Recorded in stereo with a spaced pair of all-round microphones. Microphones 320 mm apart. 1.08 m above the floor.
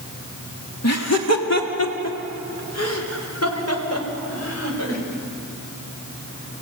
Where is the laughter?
55° left (ahead or behind), 2.5 m; by 5.0 s 50° left (ahead or behind), 6.5 m.